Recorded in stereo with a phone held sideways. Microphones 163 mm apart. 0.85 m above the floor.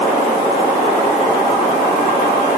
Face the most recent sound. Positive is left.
No sound to turn to.